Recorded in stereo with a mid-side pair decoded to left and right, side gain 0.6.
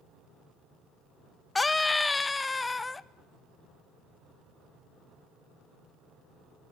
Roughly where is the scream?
Ahead.